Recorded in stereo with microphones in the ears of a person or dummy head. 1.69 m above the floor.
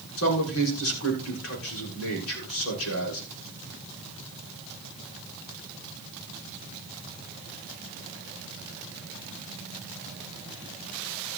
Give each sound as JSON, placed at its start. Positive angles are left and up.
{"t": 0.2, "sound": "a man speaking", "side_deg": 85, "distance_m": 6.5}